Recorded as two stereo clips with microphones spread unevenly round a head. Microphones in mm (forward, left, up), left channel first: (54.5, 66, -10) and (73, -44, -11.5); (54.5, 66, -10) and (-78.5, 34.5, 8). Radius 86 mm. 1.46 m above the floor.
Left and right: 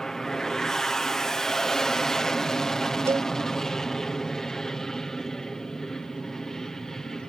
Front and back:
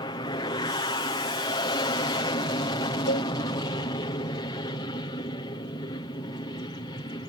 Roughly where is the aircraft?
Ahead.